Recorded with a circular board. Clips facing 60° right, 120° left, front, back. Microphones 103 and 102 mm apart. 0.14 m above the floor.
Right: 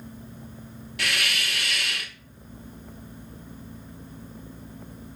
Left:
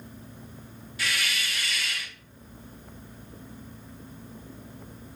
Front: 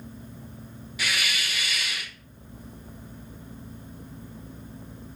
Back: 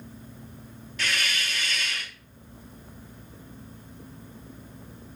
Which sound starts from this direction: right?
A hiss, at 1.0 s.